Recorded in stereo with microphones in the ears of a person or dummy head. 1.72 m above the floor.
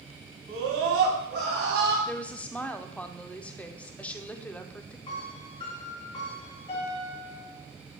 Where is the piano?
25° left (ahead or behind), 3 m.